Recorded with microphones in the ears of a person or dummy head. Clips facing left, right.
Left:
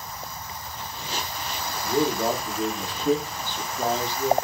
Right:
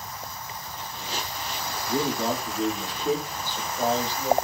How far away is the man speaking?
About 1.4 m.